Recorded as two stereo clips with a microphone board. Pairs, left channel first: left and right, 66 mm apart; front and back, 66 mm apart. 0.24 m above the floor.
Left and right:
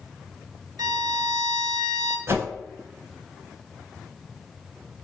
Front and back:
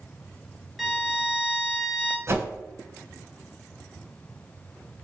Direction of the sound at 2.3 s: 135° right.